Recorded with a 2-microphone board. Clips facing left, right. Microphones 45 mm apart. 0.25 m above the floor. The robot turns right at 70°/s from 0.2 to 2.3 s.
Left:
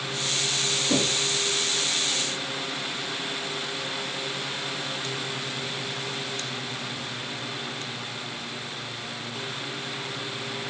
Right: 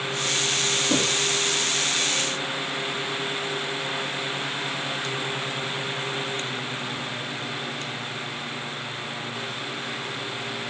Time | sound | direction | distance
0.9 | knocking | 15° left (ahead or behind) | 3.5 m